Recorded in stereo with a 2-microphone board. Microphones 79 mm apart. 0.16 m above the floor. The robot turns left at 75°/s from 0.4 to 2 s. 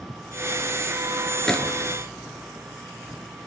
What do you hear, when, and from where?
1.5 s a gunshot: 5° left (ahead or behind), 1.1 m; by 1.9 s 35° left (ahead or behind), 1.1 m